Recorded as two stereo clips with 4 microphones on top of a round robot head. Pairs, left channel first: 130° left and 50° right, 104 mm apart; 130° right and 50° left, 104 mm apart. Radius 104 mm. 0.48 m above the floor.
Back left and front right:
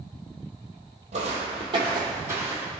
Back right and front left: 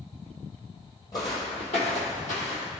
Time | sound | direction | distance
1.1 | footsteps | 75° right | 1.0 m